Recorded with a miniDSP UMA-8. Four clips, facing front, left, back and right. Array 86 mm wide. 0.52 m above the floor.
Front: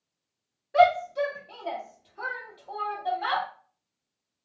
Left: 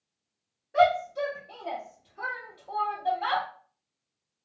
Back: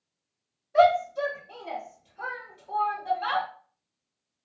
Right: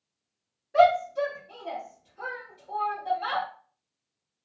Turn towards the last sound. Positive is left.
turn(degrees=40)